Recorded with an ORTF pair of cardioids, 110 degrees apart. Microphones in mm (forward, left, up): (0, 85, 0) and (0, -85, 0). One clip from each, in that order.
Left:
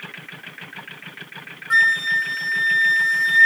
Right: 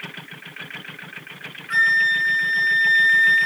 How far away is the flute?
About 0.6 m.